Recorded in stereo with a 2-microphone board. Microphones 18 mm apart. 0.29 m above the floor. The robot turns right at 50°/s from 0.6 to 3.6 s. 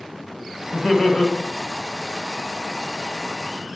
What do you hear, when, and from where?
0.7 s laughter: 45° left (ahead or behind), 1.4 m; by 1.3 s 50° left (ahead or behind), 1.4 m